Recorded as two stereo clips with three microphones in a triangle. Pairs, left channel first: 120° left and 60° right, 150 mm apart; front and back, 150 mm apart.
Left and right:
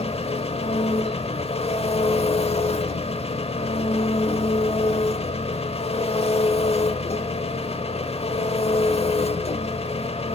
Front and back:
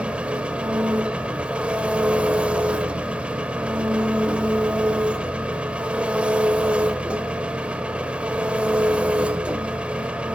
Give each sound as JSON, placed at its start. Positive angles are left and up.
{"t": 0.0, "sound": "an engine running", "azimuth_deg": 100, "distance_m": 0.8}